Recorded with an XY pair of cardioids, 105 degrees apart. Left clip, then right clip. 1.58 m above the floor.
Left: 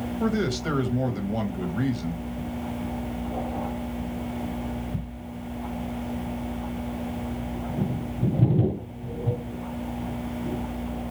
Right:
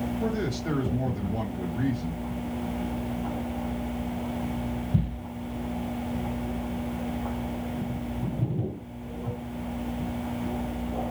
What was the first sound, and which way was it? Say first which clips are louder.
A man speaking: left 6 dB; 70° left.